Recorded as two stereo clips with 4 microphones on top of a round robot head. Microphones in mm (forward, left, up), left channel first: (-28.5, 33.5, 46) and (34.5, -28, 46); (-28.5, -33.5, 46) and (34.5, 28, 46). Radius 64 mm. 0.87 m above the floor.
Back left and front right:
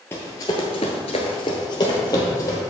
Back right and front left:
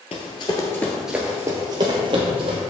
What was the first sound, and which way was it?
Running footsteps, 160° right.